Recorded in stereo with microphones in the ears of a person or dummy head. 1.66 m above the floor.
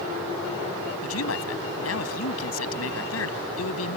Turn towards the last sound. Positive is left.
turn(degrees=90)